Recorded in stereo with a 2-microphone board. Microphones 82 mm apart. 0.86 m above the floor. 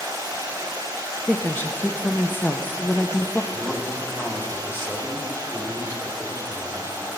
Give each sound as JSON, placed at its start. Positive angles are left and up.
{"t": 0.0, "sound": "running water", "side_deg": -45, "distance_m": 3.5}
{"t": 1.3, "sound": "a woman speaking", "side_deg": 20, "distance_m": 0.5}
{"t": 3.5, "sound": "a man speaking", "side_deg": 20, "distance_m": 1.8}